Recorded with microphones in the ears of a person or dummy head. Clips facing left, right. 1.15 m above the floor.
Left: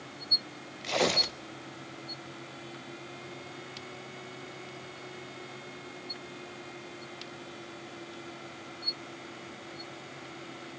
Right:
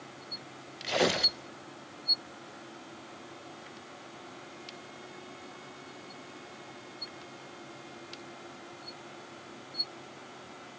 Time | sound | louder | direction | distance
0.8 | tearing paper | right 1 dB | 5° right (ahead or behind) | 0.6 m